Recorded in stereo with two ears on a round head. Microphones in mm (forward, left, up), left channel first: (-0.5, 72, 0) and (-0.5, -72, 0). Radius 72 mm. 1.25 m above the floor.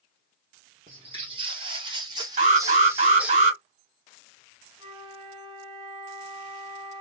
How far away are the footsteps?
About 2 m.